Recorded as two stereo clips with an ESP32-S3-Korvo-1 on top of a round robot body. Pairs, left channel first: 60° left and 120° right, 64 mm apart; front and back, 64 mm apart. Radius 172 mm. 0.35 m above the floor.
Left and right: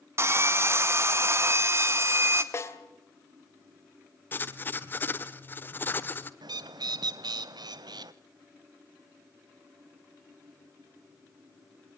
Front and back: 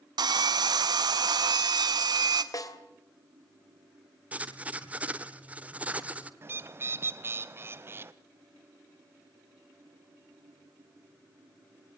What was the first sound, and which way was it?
Sawing, 170° right.